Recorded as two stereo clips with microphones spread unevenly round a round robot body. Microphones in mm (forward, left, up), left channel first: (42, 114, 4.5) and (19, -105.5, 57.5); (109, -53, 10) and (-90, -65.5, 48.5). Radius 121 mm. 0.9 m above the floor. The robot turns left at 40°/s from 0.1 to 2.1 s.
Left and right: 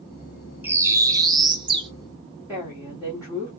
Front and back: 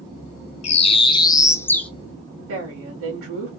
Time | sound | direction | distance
0.6 | a bird | 45° right | 0.5 m
2.5 | a woman speaking | straight behind | 2 m